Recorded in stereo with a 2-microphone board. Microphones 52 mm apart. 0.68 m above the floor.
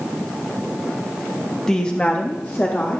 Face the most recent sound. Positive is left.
turn(degrees=40)  # may be behind; listen again after turning